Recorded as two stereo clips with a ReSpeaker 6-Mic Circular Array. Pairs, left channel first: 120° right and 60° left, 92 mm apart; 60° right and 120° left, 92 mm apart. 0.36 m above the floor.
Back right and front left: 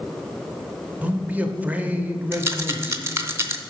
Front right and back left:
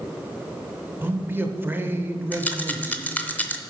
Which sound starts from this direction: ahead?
A rattle, at 2.3 s.